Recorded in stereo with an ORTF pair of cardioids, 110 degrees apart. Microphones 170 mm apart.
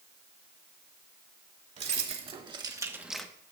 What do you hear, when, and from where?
1.8 s keys jangling: 40° right, 2.5 m; by 3.3 s 10° left, 1.0 m